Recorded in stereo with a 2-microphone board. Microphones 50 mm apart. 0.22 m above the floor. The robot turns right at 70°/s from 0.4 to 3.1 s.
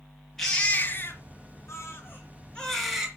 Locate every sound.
0.4 s a baby crying: 5° left, 2.5 m; by 3.1 s 165° right, 2.5 m